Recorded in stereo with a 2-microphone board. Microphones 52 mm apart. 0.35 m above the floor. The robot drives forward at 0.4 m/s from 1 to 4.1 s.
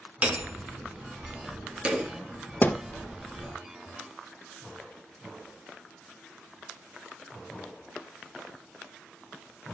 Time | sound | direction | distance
0.2 | hammering | 25° right (ahead or behind) | 3 m
2.6 | a thud | 35° left (ahead or behind) | 1.1 m